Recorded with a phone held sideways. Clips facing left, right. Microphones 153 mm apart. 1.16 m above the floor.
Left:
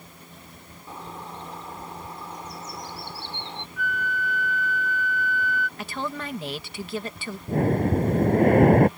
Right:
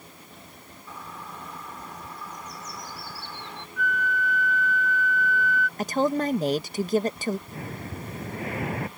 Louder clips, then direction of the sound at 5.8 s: Right 8 dB; 40° right (ahead or behind).